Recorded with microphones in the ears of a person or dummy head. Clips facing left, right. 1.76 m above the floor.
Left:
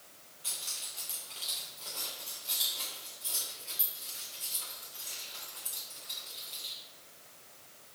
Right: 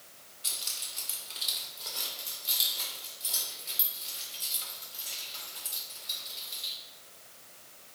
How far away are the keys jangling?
About 2.5 m.